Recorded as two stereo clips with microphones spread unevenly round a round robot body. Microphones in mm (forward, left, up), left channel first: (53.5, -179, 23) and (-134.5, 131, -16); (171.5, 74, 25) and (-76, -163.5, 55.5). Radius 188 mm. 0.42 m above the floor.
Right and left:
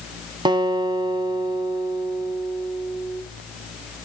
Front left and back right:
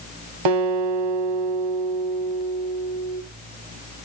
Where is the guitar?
160° right, 0.9 m.